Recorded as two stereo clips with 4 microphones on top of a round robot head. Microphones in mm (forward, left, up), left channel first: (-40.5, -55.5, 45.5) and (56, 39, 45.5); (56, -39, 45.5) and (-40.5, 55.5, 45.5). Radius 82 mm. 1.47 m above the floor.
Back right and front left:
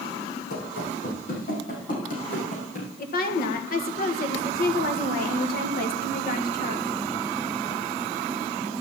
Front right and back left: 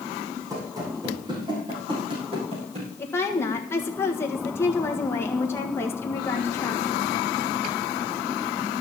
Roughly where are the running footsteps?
Behind right.